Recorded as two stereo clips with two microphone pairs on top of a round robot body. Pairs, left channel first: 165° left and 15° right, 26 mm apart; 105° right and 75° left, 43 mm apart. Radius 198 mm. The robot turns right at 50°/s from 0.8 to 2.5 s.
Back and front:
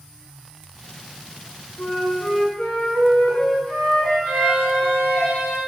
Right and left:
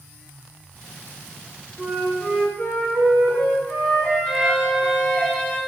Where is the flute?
170° left, 1.6 m; by 5.2 s 150° right, 1.6 m.